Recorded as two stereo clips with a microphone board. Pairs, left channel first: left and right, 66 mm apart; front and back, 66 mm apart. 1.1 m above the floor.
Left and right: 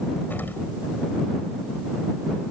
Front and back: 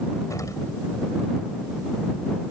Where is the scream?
No scream in this recording.